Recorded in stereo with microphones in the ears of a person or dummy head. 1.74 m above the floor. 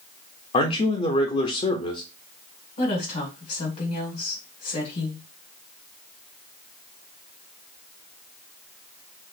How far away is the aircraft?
No aircraft in this recording.